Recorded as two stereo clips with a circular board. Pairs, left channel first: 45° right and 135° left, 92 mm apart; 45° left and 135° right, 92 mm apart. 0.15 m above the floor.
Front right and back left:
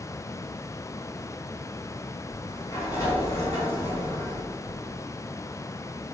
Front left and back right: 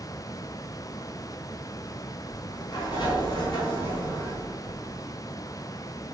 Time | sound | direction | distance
2.3 | a sliding door | 10° left | 1.1 m